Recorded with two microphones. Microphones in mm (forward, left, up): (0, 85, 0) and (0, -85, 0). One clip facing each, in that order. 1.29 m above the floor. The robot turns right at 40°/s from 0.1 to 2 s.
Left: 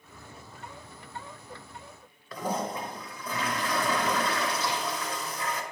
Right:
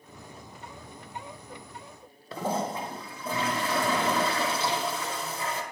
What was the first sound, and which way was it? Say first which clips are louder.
A toilet flushing: right 2 dB; 25° right (ahead or behind).